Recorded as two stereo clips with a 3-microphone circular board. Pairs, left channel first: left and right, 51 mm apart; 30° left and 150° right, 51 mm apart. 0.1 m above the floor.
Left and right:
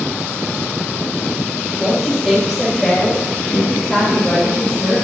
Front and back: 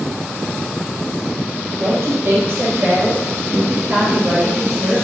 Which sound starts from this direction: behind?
A woman speaking, at 1.8 s.